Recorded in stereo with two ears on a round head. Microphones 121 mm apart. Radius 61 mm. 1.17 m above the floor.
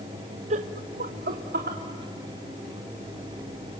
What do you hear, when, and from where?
0.5 s laughter: 50° right (ahead or behind), 0.6 m; by 1.8 s 85° right, 1.8 m